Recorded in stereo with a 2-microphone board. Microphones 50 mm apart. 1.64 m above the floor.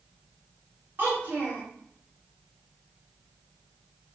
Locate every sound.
1.0 s a child speaking: 40° right (ahead or behind), 1.1 m